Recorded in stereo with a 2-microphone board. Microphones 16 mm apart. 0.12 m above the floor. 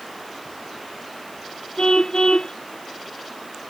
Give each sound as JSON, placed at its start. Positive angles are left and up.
{"t": 1.8, "sound": "a car horn", "side_deg": 55}